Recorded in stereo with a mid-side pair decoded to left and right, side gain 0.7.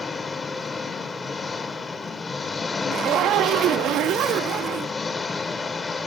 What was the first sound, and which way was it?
An engine running, 20° left.